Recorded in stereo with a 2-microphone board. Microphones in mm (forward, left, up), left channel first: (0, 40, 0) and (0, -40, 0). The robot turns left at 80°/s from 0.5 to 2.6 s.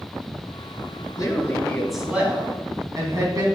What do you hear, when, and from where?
1.2 s a woman speaking: 60° left, 2.5 m; by 3.5 s 55° right, 2.5 m